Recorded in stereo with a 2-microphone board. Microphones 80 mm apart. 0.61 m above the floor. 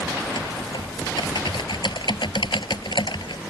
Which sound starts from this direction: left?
Typing on a keyboard, at 0.2 s.